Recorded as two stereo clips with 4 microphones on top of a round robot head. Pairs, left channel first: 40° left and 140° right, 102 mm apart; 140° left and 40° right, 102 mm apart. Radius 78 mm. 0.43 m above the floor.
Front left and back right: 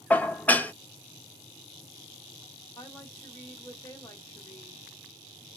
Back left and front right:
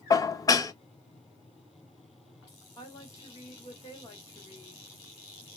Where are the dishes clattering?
105° left, 0.6 m.